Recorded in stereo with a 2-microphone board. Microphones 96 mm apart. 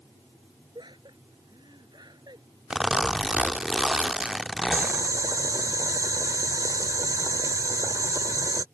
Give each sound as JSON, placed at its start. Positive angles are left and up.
{"t": 0.8, "sound": "laughter", "side_deg": -55}
{"t": 2.7, "sound": "a zipper", "side_deg": -5}
{"t": 4.7, "sound": "boiling", "side_deg": -35}